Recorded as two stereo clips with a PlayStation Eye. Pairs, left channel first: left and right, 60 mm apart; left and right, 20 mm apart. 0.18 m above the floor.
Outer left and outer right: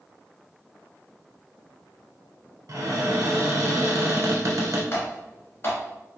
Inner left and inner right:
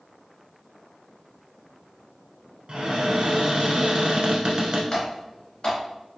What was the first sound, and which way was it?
A cupboard door, 60° right (ahead or behind).